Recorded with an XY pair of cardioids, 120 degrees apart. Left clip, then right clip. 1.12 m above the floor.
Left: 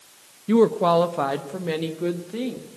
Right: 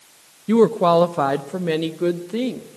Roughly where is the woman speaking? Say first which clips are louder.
Right 3 dB; ahead.